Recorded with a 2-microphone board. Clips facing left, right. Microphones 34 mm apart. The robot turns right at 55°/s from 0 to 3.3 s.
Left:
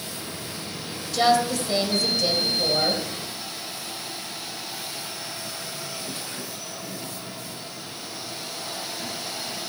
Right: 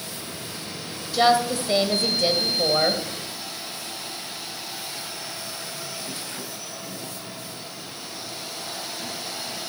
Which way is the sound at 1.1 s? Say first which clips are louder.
Right 1 dB; 160° right.